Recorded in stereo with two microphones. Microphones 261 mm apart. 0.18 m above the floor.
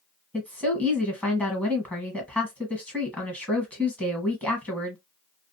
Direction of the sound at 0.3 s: 5° left (ahead or behind).